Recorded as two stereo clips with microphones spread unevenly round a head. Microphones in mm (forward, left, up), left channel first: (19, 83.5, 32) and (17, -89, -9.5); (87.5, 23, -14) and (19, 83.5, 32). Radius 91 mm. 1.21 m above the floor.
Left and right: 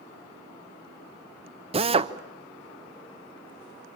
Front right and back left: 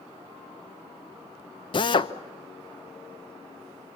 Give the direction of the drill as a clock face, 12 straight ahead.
1 o'clock.